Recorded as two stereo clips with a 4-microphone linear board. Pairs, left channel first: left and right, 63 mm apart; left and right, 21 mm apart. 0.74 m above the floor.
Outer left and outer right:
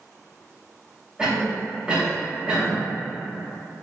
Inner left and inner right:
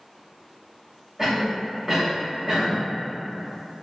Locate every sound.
1.2 s a cough: 15° right (ahead or behind), 1.0 m